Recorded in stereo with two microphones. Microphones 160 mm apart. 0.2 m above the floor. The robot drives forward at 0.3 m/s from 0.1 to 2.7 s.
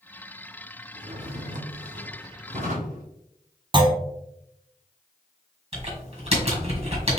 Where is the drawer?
65° right (ahead or behind), 2 m; by 3.0 s 55° right (ahead or behind), 2.5 m.